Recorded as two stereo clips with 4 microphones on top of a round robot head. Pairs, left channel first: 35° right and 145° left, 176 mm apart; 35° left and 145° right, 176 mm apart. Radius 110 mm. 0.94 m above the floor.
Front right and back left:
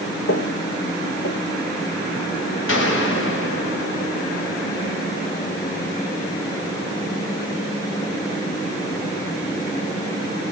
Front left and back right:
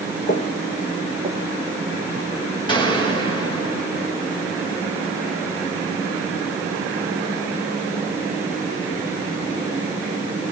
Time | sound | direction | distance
0.3 | footsteps | 10° right | 1.8 m
2.7 | a gunshot | 30° right | 5.5 m